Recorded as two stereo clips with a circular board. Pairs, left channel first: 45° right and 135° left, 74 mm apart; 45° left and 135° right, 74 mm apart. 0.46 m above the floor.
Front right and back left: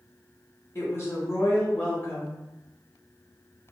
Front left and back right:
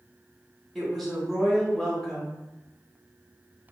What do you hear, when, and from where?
0.8 s a woman speaking: 35° right, 1.3 m